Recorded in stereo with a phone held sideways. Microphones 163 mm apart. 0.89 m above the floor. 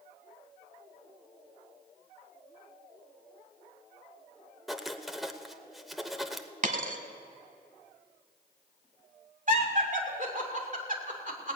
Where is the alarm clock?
I don't hear an alarm clock.